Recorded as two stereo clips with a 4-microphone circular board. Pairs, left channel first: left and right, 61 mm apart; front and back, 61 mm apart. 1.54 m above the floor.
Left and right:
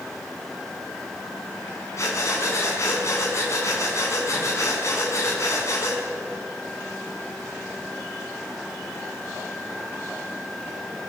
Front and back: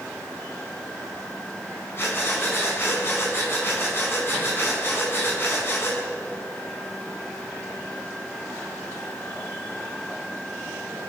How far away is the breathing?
About 5 m.